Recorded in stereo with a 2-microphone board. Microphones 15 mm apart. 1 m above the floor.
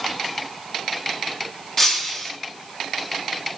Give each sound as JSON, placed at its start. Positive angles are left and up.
{"t": 1.8, "sound": "breaking glass", "side_deg": 25, "distance_m": 5.0}